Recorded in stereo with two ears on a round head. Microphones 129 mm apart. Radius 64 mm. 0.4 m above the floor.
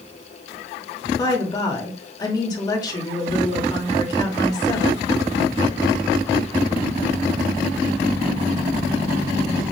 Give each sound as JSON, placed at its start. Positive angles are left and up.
{"t": 1.2, "sound": "a woman speaking", "side_deg": 25, "distance_m": 1.0}